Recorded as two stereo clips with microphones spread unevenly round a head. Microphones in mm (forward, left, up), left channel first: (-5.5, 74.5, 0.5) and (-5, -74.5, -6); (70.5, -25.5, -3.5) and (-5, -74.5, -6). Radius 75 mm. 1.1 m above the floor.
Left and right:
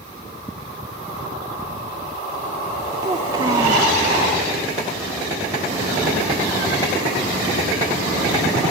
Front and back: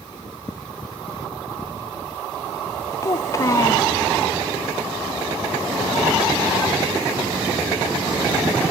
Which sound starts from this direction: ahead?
A child speaking, at 3.0 s.